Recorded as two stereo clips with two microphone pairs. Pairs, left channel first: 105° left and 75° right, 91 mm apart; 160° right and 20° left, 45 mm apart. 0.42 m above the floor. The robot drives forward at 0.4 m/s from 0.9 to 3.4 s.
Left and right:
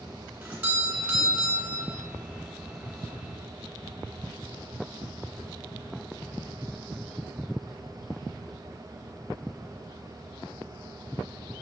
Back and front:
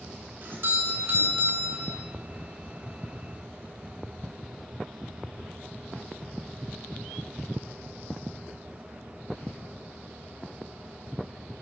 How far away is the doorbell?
About 3 m.